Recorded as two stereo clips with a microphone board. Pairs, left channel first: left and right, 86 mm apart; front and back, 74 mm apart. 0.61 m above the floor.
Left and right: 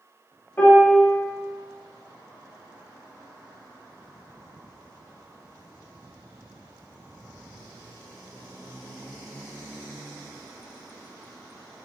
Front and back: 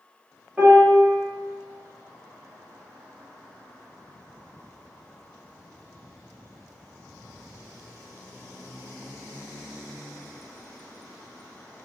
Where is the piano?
130° left, 0.7 m.